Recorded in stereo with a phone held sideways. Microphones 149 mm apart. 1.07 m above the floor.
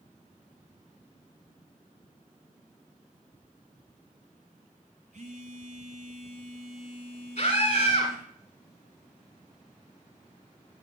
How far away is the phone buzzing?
About 3.5 m.